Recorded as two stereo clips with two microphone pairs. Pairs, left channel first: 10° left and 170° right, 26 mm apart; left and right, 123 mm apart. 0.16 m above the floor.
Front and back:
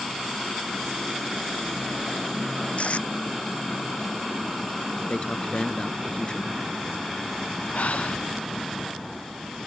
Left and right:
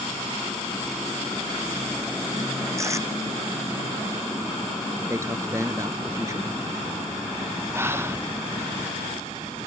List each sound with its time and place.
2.8 s tape being pulled: 25° right
5.1 s a man speaking: 30° right
7.7 s breathing: 20° right